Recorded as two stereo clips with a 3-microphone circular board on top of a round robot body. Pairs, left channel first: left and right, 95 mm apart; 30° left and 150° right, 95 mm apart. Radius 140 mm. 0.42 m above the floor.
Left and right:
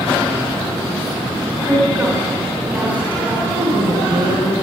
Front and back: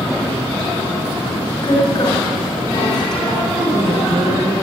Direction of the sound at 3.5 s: 100° right.